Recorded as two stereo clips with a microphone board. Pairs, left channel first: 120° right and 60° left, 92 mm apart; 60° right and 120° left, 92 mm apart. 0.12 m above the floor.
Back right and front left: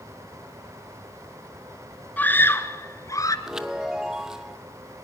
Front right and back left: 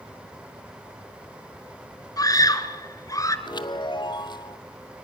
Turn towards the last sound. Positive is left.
turn(degrees=-25)